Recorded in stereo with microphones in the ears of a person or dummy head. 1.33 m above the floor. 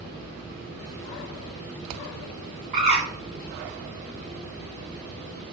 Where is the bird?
40° right (ahead or behind), 1.8 m.